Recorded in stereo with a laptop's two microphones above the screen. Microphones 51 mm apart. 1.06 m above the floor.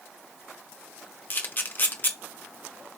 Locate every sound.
1.3 s a camera shutter: 40° left (ahead or behind), 0.7 m